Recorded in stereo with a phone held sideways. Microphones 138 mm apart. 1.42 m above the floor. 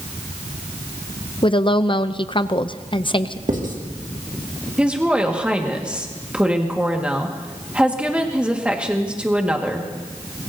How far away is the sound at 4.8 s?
About 1.7 m.